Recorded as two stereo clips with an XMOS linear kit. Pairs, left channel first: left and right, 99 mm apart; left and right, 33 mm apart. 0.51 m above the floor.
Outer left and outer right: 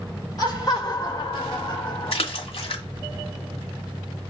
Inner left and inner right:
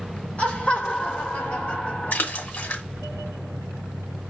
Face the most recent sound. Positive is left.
turn(degrees=70)  # may be behind; listen again after turning